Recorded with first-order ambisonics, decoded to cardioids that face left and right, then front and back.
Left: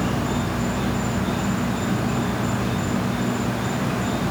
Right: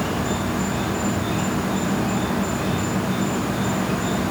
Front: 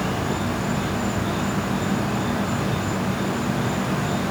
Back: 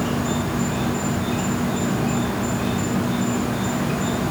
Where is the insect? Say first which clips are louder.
Right 1 dB, back 1 dB; 155° right, 1.2 m.